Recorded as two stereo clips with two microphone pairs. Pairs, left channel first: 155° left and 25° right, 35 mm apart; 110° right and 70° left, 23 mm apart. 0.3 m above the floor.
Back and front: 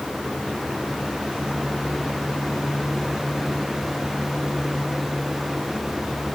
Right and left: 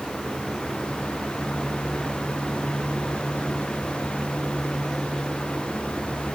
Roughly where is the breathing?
No breathing in this recording.